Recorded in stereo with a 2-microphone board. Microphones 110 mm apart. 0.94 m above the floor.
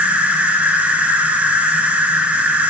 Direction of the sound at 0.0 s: 15° right (ahead or behind).